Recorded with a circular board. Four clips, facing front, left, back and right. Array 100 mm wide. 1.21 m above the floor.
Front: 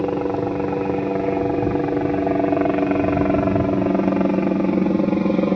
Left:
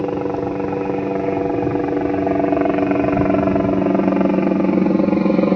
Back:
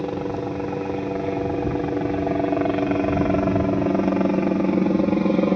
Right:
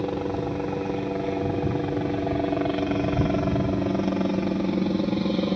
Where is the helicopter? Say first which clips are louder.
Left 7 dB, front 5 dB; 55° left; by 5.6 s 90° left.